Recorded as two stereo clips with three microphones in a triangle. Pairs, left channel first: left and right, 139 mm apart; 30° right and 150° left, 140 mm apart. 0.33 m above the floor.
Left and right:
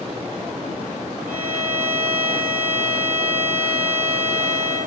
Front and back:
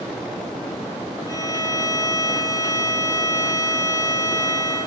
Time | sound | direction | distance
1.3 | a violin | 95° right | 3.5 m